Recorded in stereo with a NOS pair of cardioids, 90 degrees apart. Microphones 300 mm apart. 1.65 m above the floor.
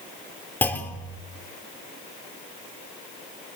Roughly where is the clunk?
Ahead.